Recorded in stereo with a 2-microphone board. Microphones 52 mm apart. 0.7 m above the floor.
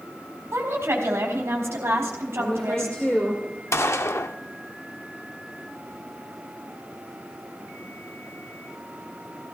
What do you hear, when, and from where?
0.5 s a woman speaking: 65° right (ahead or behind), 4 m
2.4 s a woman speaking: 15° left (ahead or behind), 2.5 m
3.7 s a gunshot: 65° left (ahead or behind), 0.6 m